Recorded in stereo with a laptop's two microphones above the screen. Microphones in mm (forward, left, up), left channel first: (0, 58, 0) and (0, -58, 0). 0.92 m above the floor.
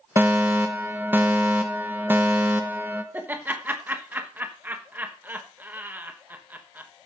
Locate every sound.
0.2 s a fire alarm: 20° right (ahead or behind), 1.2 m
3.1 s laughter: 15° right (ahead or behind), 1.0 m